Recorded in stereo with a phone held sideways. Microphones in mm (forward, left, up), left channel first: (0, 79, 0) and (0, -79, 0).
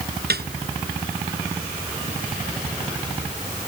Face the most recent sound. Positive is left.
turn(degrees=-90)